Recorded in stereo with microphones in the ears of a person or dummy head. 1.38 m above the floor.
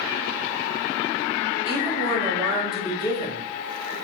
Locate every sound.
1.6 s a woman speaking: 25° left (ahead or behind), 4.5 m